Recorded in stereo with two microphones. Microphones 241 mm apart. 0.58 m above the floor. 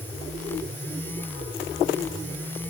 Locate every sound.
Only background noise.